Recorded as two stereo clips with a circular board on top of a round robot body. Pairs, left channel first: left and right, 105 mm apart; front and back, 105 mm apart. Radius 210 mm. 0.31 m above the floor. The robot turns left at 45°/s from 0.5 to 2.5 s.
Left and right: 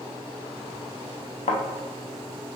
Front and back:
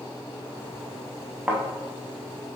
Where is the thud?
100° left, 0.5 m; by 1.6 s 90° left, 0.5 m.